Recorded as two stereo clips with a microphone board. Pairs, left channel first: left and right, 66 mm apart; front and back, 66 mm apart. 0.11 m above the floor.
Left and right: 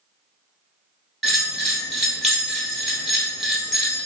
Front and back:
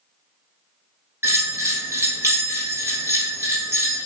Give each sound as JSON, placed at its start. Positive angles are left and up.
{"t": 1.2, "sound": "a bell", "azimuth_deg": -170, "distance_m": 1.1}